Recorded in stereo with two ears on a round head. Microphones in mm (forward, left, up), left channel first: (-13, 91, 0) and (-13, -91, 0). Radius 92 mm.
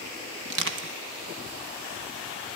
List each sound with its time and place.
0.5 s crushing: 65° right (ahead or behind), 1.6 m